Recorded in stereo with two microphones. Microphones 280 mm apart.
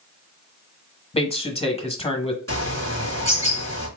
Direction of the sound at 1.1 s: 20° left (ahead or behind).